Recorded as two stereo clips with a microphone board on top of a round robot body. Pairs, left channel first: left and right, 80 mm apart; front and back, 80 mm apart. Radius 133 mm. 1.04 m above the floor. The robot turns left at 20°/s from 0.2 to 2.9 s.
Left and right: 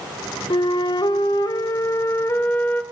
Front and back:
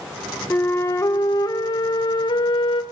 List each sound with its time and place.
0.5 s a flute: 65° left, 1.3 m; by 2.8 s 20° left, 1.3 m